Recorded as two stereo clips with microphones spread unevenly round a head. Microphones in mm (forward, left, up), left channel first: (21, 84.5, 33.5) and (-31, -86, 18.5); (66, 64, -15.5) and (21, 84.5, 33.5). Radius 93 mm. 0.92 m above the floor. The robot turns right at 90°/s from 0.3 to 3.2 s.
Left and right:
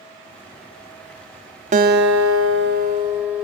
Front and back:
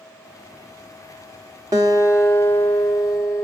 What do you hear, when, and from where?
1.7 s a guitar: 160° right, 1.4 m; by 3.4 s 25° right, 1.4 m